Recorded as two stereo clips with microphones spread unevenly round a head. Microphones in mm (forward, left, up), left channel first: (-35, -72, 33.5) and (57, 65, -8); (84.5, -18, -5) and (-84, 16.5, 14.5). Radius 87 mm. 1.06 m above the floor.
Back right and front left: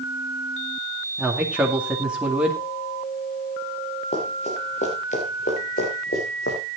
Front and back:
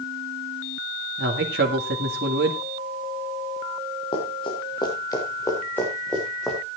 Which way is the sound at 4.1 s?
75° right.